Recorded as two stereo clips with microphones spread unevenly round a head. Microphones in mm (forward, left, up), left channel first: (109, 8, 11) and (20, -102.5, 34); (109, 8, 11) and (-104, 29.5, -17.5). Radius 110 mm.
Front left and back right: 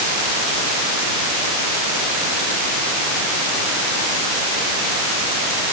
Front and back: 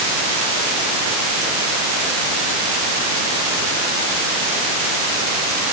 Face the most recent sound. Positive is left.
No sound to turn to.